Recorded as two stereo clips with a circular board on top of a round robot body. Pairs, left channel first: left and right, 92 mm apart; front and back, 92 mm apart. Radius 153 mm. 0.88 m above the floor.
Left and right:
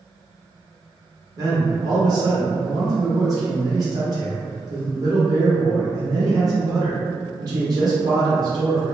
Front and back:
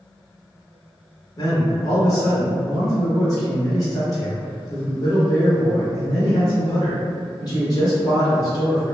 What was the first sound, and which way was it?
A man speaking, 45° right.